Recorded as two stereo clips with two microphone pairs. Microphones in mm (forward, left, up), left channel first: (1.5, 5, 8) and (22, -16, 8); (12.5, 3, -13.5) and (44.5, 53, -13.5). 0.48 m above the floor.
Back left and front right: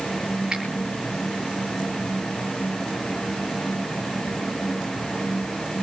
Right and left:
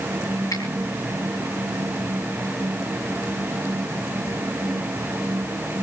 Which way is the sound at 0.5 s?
105° right.